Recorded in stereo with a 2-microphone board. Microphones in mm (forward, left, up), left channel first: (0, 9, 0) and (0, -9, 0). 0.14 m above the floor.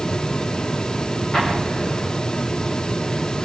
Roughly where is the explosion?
Left.